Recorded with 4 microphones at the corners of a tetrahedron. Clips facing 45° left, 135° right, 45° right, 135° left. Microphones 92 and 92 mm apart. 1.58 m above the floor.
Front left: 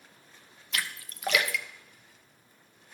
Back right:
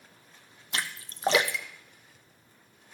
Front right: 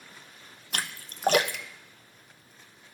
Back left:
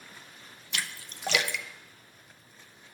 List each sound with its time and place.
0.7 s a splash: 80° right, 0.6 m